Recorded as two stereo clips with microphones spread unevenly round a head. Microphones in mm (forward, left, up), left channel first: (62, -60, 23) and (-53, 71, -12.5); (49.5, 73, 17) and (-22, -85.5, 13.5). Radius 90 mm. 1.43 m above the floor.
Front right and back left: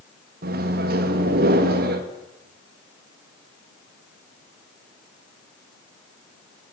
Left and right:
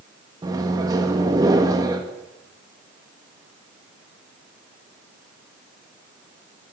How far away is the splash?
No splash in this recording.